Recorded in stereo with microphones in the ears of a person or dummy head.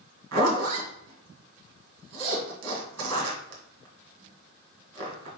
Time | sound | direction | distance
0.3 | a zipper | 75° right (ahead or behind) | 1.7 m